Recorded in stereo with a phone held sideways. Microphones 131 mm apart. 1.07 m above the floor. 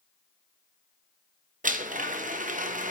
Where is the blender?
85° right, 0.8 m.